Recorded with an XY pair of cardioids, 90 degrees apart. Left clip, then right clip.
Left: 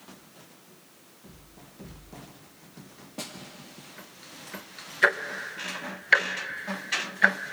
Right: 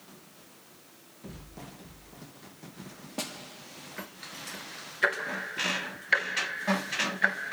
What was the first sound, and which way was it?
A snare drum, 40° right.